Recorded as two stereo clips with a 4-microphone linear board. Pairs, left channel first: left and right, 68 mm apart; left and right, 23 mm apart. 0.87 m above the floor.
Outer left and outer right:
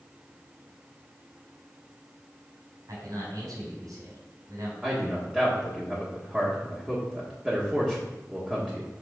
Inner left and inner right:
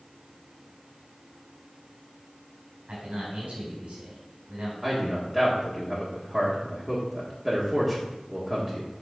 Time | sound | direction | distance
2.9 | a man speaking | 70° right (ahead or behind) | 4 m
4.8 | a man speaking | 15° right (ahead or behind) | 1.5 m